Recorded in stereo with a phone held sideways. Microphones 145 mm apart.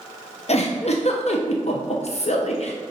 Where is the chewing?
I don't hear chewing.